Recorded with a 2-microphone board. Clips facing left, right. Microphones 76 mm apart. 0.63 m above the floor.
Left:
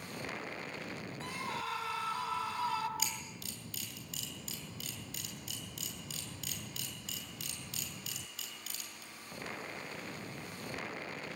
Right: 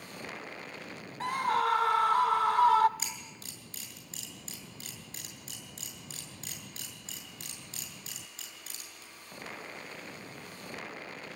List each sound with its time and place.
1.2 s a scream: 60° right (ahead or behind), 1.7 m
3.0 s a camera shutter: 35° right (ahead or behind), 7 m